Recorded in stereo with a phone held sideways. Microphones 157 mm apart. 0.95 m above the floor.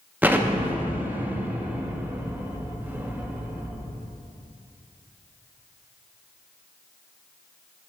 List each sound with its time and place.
0.2 s an explosion: 10° right (ahead or behind), 0.6 m